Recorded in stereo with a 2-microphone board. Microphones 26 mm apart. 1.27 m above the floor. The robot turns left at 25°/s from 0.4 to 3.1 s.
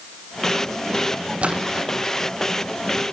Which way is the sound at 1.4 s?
50° right (ahead or behind).